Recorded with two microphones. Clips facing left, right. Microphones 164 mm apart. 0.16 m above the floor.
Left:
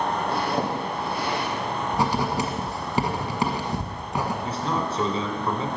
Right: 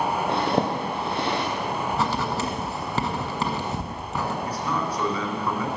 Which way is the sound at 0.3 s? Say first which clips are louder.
Right 2 dB; 25° right (ahead or behind).